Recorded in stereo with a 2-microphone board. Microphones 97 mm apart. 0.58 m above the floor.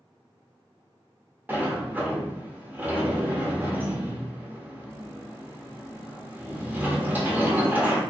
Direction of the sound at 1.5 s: 20° right (ahead or behind).